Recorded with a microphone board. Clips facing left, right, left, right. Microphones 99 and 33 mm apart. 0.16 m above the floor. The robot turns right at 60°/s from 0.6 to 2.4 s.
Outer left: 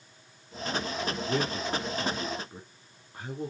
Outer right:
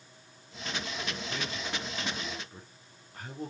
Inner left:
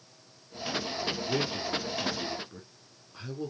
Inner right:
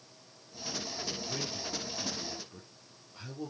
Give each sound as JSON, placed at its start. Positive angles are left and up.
{"t": 1.3, "sound": "a man speaking", "side_deg": 80, "distance_m": 4.5}